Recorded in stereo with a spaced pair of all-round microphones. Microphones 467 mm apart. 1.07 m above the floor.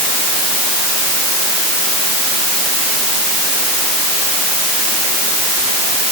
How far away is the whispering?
I don't hear whispering.